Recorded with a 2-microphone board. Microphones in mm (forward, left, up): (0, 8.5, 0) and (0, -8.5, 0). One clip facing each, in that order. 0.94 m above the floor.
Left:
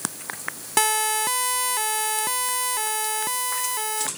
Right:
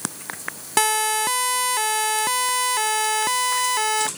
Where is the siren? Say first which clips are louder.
Right 2 dB; 5° right (ahead or behind); by 4.1 s 30° right (ahead or behind).